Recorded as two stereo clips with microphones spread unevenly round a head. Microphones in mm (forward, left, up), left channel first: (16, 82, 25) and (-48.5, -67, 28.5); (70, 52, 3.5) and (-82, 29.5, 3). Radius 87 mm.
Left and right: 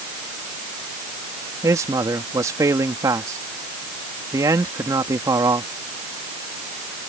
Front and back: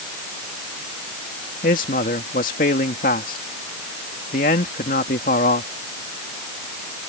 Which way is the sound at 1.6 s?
40° right.